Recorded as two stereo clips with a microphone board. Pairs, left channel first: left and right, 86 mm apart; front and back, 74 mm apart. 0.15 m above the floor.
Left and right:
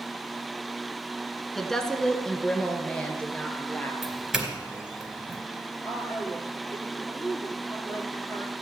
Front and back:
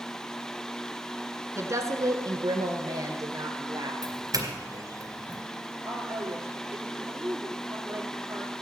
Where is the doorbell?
175° right, 2.5 m.